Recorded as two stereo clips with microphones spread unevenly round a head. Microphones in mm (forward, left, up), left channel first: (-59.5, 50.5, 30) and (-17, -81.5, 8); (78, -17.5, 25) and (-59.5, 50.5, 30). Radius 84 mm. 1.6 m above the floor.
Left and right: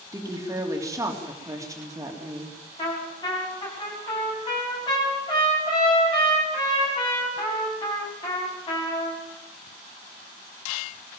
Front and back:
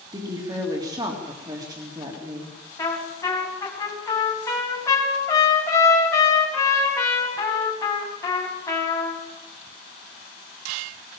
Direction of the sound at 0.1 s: 140° right.